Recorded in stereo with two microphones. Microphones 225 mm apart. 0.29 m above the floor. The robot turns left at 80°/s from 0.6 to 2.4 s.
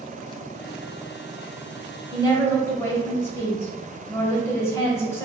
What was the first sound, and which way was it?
A woman speaking, 20° left (ahead or behind).